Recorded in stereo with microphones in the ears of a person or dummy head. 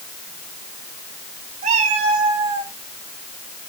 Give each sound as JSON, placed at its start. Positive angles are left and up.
{"t": 1.6, "sound": "a cat meowing", "side_deg": -40, "distance_m": 1.6}